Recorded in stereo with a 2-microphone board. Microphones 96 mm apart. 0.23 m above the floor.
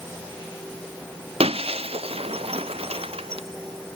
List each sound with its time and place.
1.4 s breaking glass: 80° right